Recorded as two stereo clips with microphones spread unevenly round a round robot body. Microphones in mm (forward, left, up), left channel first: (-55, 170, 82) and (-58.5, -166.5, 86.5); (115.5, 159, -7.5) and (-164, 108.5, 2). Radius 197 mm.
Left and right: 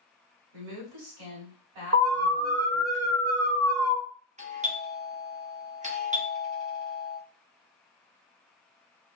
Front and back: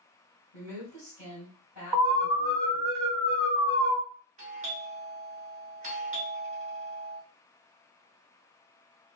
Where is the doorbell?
135° right, 1.1 m.